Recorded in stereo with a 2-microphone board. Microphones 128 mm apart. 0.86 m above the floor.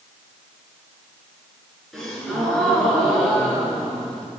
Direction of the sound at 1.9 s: 5° left (ahead or behind).